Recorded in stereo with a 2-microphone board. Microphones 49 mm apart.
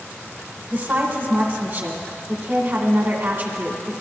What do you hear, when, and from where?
0.7 s a woman speaking: 45° right (ahead or behind), 1.9 m